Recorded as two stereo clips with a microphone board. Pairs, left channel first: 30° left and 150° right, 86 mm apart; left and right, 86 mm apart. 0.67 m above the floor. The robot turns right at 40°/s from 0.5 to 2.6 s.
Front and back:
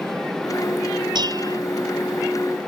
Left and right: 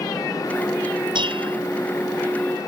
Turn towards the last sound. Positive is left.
turn(degrees=-55)